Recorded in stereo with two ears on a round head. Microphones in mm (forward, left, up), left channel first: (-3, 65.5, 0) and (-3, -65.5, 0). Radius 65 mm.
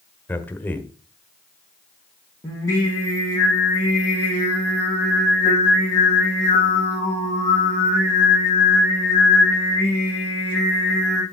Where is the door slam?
No door slam in this recording.